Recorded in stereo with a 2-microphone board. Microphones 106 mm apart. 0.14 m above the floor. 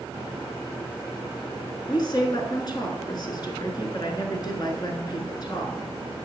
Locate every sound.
1.9 s a woman speaking: 45° left (ahead or behind), 1.5 m